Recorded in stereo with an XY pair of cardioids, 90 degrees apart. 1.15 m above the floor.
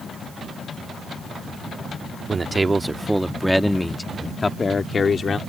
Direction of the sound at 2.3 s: 35° right.